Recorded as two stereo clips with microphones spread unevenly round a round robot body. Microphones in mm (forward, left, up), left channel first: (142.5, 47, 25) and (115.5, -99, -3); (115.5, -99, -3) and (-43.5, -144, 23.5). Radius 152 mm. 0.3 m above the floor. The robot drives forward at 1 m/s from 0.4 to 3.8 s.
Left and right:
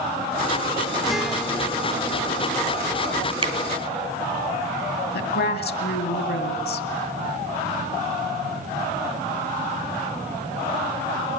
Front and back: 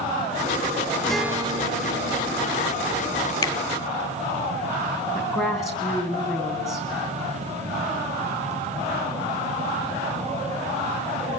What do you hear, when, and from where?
1.1 s a guitar: 35° right, 0.8 m; by 3.3 s 175° right, 2 m
3.4 s a finger snap: 50° right, 3 m
5.1 s a woman speaking: 100° left, 2.5 m